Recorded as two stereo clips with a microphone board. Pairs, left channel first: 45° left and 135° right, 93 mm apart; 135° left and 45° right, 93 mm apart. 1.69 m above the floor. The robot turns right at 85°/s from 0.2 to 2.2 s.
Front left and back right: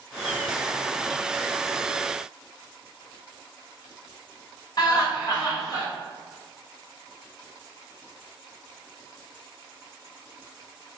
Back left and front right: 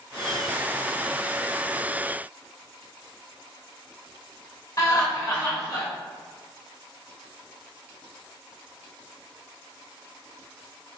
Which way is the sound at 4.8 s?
85° left.